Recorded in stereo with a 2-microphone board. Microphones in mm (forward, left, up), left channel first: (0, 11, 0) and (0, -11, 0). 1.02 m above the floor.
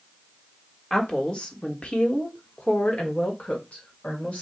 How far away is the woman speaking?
About 1.5 m.